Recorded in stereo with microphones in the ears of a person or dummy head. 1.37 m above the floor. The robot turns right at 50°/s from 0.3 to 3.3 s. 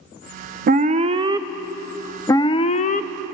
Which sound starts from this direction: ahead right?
An alarm, at 0.7 s.